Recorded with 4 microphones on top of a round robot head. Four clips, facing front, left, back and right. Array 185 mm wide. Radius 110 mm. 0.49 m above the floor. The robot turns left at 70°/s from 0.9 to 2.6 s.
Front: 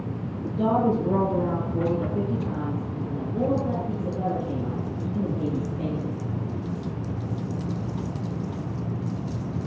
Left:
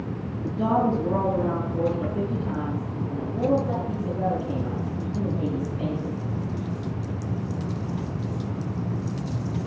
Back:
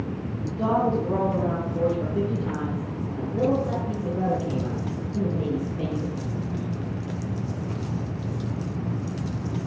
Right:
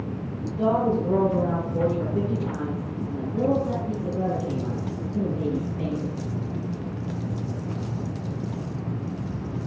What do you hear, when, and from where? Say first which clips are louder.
0.5 s a woman speaking: even, front 1 dB; 30° right, 7 m; by 6.1 s 150° right, 7 m